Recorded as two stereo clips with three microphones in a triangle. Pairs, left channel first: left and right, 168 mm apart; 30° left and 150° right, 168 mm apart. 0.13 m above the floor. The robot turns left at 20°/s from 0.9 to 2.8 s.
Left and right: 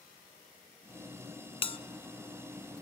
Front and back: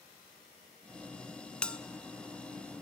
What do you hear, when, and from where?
1.6 s a bell: 110° left, 0.6 m; by 1.8 s 105° left, 0.6 m